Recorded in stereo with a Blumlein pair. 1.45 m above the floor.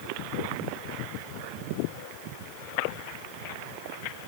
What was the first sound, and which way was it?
Only background noise.